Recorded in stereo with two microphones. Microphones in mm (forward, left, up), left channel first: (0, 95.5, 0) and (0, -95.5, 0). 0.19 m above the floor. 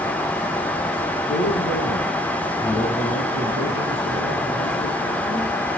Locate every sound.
1.3 s a man speaking: 75° left (ahead or behind), 5.5 m